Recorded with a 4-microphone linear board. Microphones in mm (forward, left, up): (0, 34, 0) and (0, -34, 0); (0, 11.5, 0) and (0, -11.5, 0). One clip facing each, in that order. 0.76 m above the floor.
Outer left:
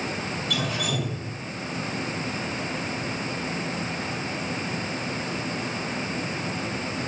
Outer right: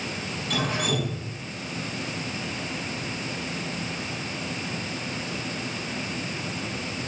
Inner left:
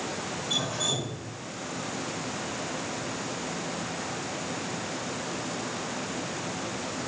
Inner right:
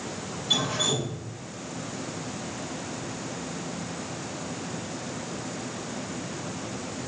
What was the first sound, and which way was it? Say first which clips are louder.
Dripping: outer right 3 dB, inner right 4 dB; 45° right (ahead or behind).